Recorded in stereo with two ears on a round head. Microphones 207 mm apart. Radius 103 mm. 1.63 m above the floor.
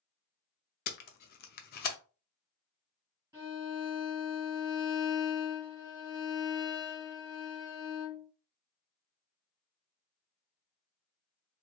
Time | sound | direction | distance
0.9 | tape being pulled | 40° left (ahead or behind) | 0.6 m
3.3 | a violin | 15° right (ahead or behind) | 2.5 m